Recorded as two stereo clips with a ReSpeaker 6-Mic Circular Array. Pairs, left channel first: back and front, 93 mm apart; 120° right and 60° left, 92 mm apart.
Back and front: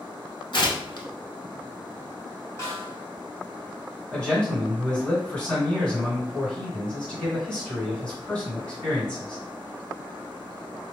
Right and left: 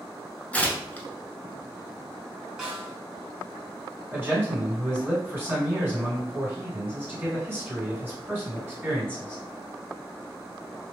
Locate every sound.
0.5 s tearing paper: 170° left, 0.7 m
2.6 s a snare drum: 140° left, 1.6 m
4.1 s a man speaking: 110° left, 2.0 m